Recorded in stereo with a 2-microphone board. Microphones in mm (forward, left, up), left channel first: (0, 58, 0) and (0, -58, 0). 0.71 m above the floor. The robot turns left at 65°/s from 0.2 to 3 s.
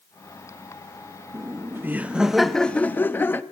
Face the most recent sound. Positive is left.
turn(degrees=15)  # may be behind; listen again after turning